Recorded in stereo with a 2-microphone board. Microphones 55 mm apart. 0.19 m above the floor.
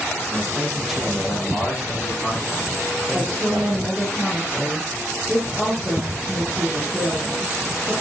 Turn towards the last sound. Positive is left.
turn(degrees=5)  # may be behind; listen again after turning